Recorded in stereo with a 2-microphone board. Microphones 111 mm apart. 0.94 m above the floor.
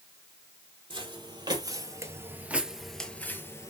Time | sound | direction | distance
0.9 | footsteps | 45° right (ahead or behind) | 1.5 m